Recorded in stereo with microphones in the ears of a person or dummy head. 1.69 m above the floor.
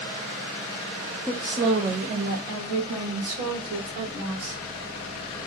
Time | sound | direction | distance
1.3 | a woman speaking | centre (ahead or behind) | 0.6 m